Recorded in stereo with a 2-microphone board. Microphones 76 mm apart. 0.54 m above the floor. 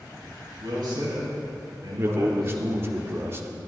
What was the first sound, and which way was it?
A man speaking, 70° right (ahead or behind).